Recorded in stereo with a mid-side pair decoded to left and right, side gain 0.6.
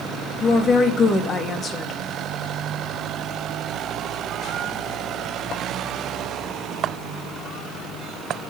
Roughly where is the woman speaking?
Ahead left.